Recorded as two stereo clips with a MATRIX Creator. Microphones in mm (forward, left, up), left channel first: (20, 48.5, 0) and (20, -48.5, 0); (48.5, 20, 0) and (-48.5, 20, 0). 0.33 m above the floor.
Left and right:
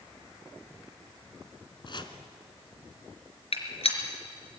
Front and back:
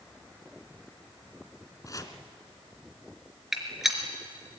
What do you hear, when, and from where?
1.9 s chopping: 55° left, 1.6 m
3.5 s a gunshot: 90° left, 3.5 m